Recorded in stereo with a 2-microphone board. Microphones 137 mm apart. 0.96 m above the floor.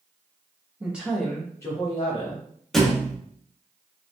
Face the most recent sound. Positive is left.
turn(degrees=0)  # may be behind; listen again after turning